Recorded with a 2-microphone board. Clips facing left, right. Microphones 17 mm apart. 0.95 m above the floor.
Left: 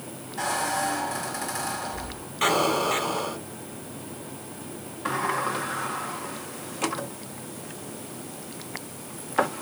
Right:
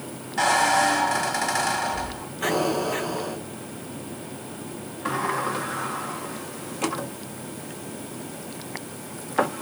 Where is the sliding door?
5° left (ahead or behind), 0.6 m.